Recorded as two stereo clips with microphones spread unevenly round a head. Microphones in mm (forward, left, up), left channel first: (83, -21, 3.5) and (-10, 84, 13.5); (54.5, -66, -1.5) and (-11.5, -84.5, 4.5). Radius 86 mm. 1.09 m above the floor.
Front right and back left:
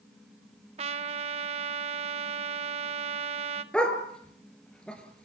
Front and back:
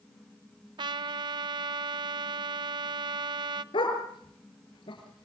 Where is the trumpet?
175° right, 0.8 m.